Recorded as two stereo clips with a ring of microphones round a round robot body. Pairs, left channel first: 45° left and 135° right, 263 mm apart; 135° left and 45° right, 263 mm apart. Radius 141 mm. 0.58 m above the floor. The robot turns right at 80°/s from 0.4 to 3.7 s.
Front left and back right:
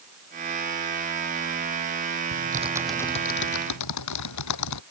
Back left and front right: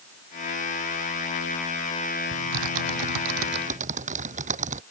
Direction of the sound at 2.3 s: 90° right.